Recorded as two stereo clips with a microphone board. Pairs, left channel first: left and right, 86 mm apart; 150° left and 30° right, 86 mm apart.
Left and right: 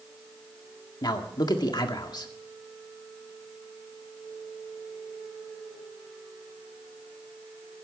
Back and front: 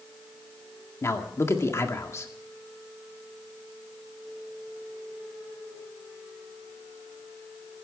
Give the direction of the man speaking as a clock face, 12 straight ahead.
9 o'clock.